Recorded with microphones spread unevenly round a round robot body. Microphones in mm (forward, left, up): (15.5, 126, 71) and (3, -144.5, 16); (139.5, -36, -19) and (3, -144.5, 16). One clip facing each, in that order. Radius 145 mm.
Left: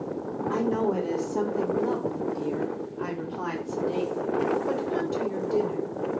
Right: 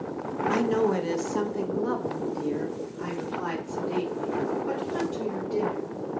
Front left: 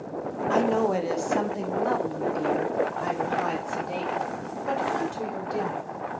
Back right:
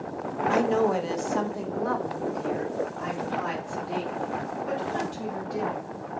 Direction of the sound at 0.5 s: 60° right.